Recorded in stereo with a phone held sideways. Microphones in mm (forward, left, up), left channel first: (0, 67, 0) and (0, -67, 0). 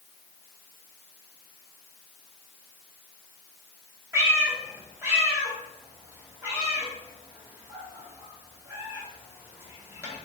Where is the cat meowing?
20° right (ahead or behind), 1.2 m.